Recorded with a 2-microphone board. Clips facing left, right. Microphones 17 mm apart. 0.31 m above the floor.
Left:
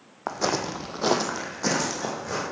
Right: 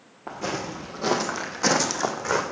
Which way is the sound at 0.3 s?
60° left (ahead or behind).